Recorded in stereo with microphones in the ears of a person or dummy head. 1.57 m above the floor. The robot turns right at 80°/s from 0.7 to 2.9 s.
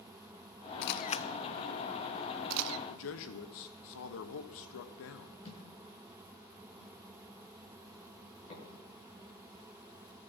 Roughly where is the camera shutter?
Left.